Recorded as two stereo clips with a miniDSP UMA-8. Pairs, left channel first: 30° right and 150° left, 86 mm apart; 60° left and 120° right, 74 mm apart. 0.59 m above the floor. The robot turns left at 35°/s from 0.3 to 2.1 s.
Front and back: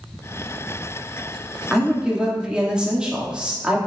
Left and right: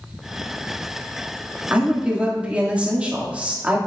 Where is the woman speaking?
140° right, 1.2 m; by 3.8 s 155° right, 1.2 m.